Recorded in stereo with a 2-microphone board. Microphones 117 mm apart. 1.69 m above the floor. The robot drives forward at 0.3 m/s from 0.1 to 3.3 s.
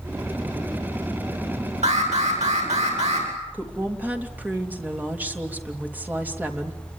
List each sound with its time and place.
1.8 s an alarm: 75° right (ahead or behind), 9.5 m
3.5 s a woman speaking: 15° right (ahead or behind), 3 m